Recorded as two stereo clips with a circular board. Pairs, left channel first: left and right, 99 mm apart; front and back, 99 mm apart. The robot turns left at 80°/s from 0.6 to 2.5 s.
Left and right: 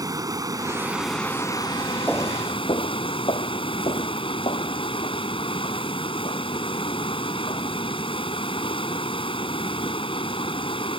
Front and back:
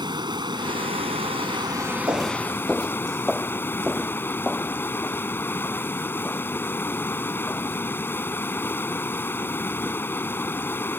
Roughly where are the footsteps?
Behind left.